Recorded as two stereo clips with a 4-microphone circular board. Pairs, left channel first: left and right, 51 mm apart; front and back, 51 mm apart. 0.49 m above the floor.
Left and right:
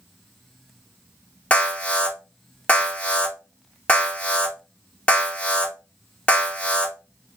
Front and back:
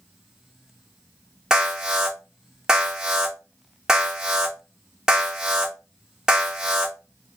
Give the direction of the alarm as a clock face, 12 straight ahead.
8 o'clock.